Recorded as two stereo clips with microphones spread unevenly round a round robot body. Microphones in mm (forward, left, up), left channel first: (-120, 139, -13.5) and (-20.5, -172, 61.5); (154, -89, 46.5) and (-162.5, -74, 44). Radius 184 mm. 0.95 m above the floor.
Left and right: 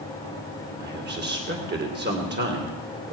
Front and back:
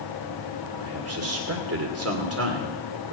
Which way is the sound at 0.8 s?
135° right.